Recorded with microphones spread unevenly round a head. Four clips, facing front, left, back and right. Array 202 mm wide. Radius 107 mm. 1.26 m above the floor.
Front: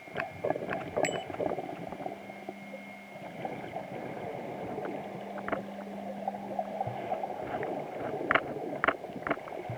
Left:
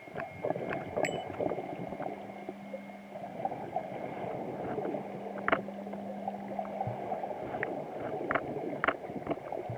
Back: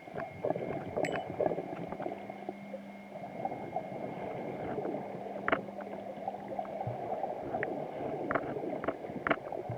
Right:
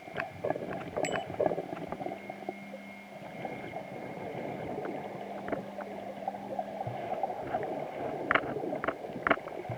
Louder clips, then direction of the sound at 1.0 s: Right 2 dB, front 1 dB; 15° left.